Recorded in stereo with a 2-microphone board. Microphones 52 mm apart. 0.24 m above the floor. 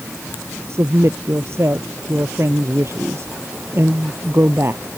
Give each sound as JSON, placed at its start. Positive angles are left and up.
{"t": 0.7, "sound": "a woman speaking", "side_deg": -50}